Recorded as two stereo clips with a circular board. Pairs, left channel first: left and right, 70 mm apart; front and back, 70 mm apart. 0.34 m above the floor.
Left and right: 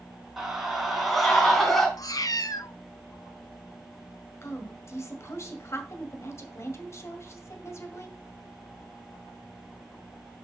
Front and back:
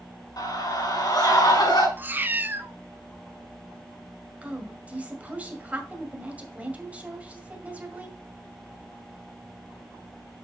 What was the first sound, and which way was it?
A scream, 5° right.